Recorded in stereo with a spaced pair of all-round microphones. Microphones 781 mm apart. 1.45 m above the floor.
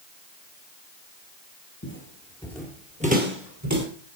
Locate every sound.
1.8 s footsteps: 15° left (ahead or behind), 1.8 m; by 3.9 s 20° right (ahead or behind), 2 m